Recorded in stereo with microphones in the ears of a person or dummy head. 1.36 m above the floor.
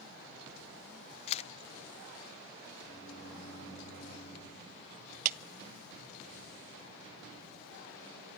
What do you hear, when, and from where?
1.3 s a camera shutter: 40° left (ahead or behind), 0.7 m
2.9 s a microwave: 35° left (ahead or behind), 9.5 m
5.2 s a clap: 45° right (ahead or behind), 0.5 m